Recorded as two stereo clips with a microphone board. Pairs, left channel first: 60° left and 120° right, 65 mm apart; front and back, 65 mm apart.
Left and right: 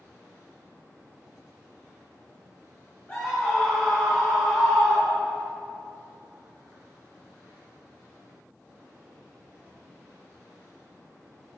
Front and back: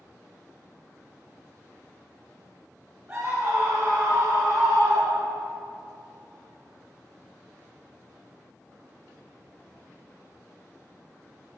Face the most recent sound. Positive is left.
turn(degrees=150)